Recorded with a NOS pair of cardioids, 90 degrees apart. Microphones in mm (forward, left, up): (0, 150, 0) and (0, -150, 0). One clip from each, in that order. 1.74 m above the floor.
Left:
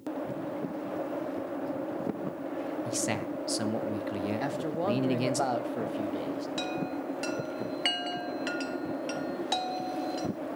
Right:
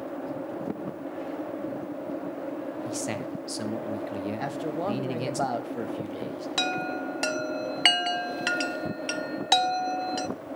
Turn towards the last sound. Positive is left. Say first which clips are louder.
# right 5 dB
turn(degrees=-40)